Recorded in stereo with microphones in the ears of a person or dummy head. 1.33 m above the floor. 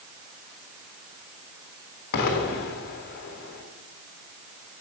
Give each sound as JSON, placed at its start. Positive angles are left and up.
{"t": 2.1, "sound": "an explosion", "side_deg": 50, "distance_m": 1.3}